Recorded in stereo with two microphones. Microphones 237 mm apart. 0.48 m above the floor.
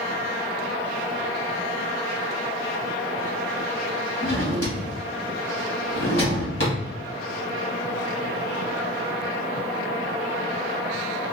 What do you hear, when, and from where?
4.2 s a drawer: 70° left (ahead or behind), 1.7 m